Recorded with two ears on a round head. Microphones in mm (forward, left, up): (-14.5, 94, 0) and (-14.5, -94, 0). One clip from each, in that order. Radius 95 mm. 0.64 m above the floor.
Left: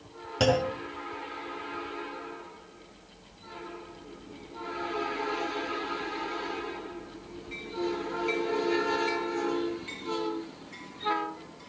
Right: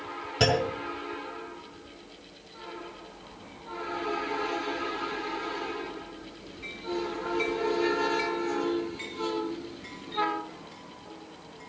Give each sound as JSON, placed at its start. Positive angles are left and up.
{"t": 0.4, "sound": "a clunk", "side_deg": 5, "distance_m": 4.5}